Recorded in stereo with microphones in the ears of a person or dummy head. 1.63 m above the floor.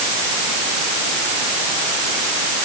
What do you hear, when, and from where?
Only background noise.